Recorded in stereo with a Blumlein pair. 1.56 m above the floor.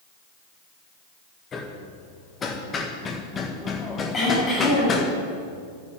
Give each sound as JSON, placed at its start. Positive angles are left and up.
{"t": 1.5, "sound": "hammering", "azimuth_deg": 20, "distance_m": 1.7}
{"t": 4.1, "sound": "throat clearing", "azimuth_deg": 15, "distance_m": 6.5}